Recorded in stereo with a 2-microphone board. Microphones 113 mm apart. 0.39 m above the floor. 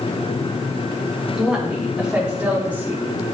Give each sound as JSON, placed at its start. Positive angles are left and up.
{"t": 1.4, "sound": "a woman speaking", "side_deg": -5, "distance_m": 3.5}